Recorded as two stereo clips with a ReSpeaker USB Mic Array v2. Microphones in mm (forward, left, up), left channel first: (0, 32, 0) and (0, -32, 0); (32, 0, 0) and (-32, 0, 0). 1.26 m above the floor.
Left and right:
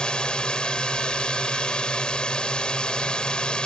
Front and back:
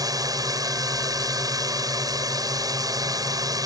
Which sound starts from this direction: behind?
A drone, at 0.0 s.